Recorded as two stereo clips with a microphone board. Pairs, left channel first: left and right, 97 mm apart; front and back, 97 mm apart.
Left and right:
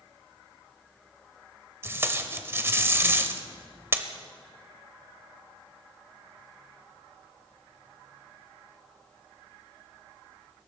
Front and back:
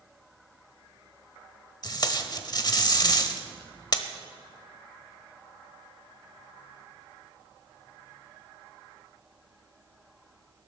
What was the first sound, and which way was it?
Tape being pulled, 30° right.